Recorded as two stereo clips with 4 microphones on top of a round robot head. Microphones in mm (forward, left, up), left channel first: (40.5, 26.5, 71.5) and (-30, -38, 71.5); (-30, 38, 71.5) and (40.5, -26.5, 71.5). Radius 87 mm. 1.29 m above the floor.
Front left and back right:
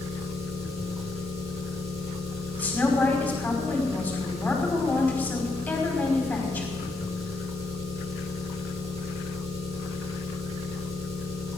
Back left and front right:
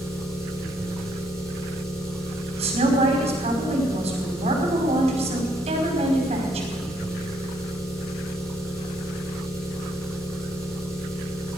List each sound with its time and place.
0.0 s an engine running: 135° right, 8 m
2.6 s a woman speaking: 35° right, 5 m